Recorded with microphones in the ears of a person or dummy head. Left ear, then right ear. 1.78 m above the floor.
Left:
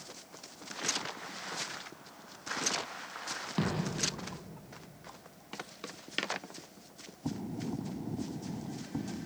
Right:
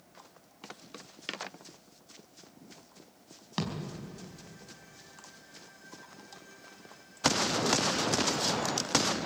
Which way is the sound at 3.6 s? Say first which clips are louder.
Even; 45° right (ahead or behind).